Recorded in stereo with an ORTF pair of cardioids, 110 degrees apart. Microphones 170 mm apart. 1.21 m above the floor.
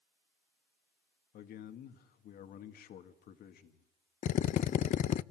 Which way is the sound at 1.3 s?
65° left.